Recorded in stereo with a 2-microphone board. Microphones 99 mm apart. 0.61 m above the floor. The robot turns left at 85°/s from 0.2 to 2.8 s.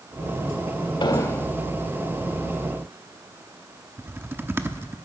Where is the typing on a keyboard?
25° right (ahead or behind), 0.8 m.